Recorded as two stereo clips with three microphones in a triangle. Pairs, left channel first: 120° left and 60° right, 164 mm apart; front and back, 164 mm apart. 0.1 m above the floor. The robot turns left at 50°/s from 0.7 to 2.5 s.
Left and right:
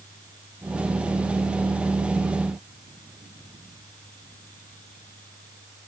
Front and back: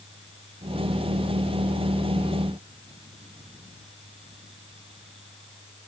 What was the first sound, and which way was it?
Only background noise.